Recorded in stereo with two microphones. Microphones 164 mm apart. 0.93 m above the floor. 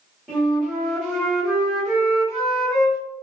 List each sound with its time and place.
0.3 s a flute: centre (ahead or behind), 1.6 m